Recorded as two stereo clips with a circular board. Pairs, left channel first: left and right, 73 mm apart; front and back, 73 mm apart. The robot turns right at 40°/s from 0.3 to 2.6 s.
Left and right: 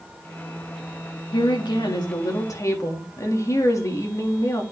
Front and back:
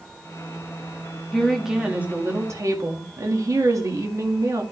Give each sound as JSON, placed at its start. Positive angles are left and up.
{"t": 1.3, "sound": "a woman speaking", "azimuth_deg": 85, "distance_m": 1.7}